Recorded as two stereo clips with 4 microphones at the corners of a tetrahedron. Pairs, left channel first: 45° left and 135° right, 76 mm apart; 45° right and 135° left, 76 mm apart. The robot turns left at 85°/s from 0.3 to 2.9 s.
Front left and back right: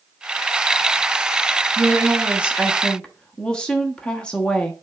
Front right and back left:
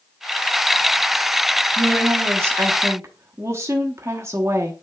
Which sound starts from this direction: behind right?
A woman speaking, at 1.8 s.